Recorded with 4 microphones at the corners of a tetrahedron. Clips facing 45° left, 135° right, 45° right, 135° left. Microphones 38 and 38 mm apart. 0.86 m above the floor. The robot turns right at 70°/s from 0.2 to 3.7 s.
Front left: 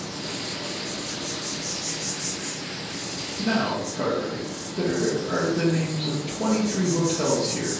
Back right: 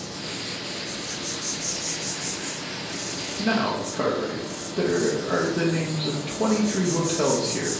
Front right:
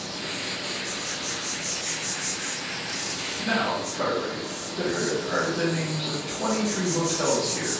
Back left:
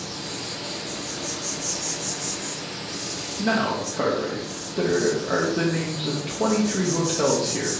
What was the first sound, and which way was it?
An insect, 20° left.